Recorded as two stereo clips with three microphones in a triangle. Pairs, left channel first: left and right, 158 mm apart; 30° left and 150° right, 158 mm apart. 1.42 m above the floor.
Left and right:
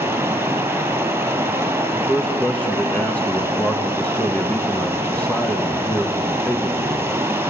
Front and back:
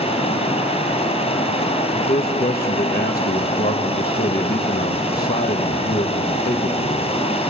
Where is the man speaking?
10° left, 1.5 m.